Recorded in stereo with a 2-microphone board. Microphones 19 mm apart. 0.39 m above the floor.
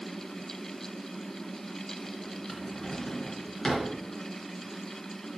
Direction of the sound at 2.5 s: 30° left (ahead or behind).